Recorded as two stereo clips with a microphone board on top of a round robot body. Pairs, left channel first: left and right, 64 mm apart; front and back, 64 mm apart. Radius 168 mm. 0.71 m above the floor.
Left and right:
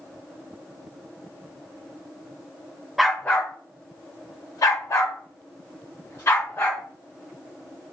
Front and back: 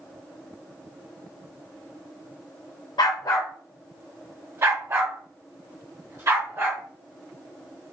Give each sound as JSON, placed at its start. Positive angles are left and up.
{"t": 3.0, "sound": "a dog barking", "azimuth_deg": 0, "distance_m": 0.6}